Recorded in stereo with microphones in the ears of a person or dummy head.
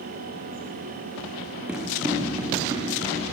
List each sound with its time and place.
1.7 s running footsteps: 5° right (ahead or behind), 5 m; by 3.2 s 20° right (ahead or behind), 7 m